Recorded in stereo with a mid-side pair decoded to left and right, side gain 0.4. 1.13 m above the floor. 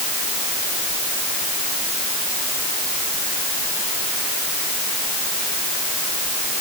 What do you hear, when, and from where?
Only background noise.